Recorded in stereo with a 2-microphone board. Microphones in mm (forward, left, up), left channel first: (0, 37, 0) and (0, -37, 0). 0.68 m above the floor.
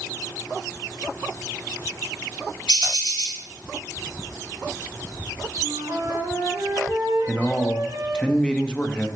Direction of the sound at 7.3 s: 10° left (ahead or behind).